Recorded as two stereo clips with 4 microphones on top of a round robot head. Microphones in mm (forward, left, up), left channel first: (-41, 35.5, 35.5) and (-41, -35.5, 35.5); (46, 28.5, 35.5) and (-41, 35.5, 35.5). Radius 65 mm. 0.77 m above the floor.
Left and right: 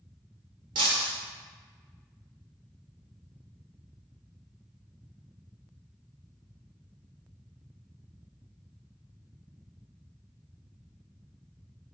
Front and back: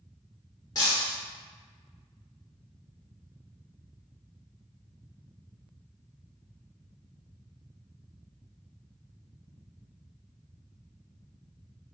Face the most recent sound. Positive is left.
turn(degrees=-65)